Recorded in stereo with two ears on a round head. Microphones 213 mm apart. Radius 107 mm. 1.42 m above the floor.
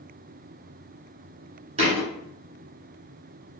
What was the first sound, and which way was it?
A thud, 30° right (ahead or behind).